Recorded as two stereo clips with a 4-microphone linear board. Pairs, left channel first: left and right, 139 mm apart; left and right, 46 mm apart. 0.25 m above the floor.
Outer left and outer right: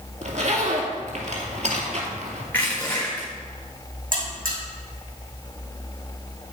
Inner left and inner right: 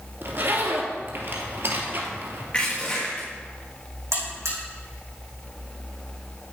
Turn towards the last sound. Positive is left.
turn(degrees=-85)